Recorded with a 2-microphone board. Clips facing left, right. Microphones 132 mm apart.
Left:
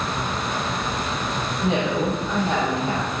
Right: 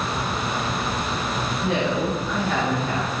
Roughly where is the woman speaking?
Left.